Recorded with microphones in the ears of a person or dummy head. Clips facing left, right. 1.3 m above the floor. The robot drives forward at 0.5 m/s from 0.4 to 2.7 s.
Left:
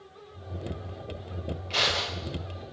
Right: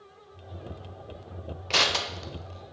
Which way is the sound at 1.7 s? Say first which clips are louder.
Right 3 dB; 75° right (ahead or behind).